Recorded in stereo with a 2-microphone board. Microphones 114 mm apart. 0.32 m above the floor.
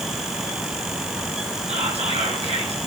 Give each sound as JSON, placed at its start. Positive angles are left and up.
{"t": 1.7, "sound": "whispering", "side_deg": -70, "distance_m": 4.0}